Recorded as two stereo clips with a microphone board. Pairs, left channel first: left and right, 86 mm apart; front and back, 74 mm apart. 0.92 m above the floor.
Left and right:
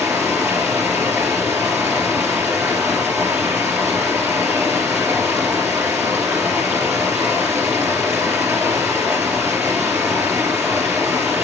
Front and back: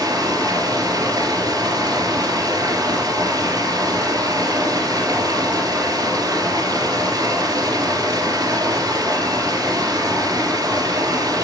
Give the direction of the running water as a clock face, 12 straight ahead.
5 o'clock.